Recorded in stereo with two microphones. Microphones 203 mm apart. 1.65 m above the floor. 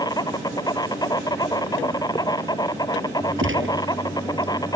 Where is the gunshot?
75° right (ahead or behind).